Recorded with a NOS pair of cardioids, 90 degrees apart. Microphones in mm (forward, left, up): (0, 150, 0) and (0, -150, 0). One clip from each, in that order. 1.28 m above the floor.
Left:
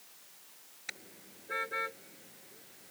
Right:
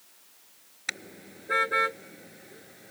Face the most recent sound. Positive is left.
turn(degrees=-70)